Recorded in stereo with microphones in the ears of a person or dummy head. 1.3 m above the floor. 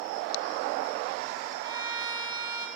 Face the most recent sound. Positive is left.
turn(degrees=-20)  # may be behind; listen again after turning